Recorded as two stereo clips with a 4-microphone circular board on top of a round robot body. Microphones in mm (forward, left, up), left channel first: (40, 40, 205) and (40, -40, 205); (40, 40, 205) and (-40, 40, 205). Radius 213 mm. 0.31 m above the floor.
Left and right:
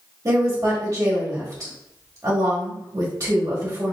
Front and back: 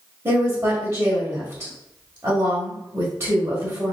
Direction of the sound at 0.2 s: 130° right.